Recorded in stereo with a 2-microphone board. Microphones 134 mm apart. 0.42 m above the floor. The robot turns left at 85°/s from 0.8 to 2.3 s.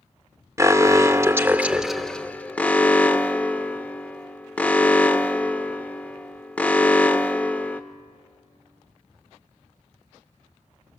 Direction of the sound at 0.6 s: 20° right (ahead or behind).